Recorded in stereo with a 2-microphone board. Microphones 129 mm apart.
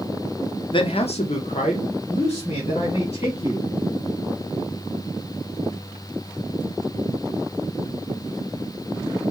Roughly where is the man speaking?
Left.